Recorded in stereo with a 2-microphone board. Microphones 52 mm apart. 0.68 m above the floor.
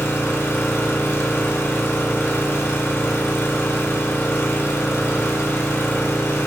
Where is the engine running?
55° left (ahead or behind), 2 m.